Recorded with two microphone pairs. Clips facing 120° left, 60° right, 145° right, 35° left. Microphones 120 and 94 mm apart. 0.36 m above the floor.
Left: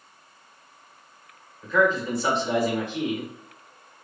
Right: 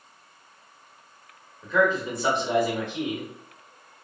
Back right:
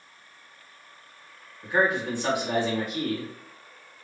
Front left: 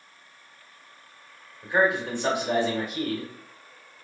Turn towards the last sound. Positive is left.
turn(degrees=-10)